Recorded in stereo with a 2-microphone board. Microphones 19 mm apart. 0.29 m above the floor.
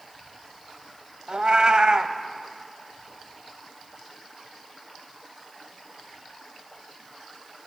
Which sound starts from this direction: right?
A cat meowing, at 1.3 s.